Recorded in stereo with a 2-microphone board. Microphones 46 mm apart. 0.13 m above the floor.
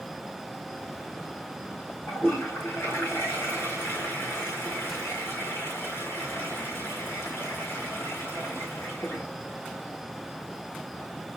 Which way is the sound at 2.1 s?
65° left (ahead or behind).